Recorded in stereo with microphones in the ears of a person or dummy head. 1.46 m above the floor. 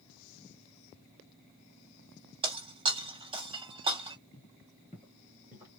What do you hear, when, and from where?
2.4 s breaking glass: 30° right (ahead or behind), 1.9 m
4.3 s footsteps: 20° left (ahead or behind), 1.5 m; by 5.8 s 20° right (ahead or behind), 1.5 m